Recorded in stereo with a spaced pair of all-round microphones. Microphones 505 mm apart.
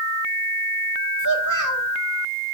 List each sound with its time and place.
1.2 s a child speaking: 35° right (ahead or behind), 2.5 m